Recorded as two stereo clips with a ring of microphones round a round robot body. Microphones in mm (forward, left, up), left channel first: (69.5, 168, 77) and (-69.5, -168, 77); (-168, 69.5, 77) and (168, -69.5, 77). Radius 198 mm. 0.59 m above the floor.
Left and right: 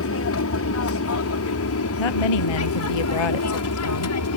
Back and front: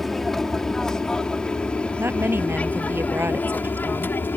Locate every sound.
0.0 s an aircraft: 70° left; by 4.4 s 75° left
2.0 s a woman speaking: 60° left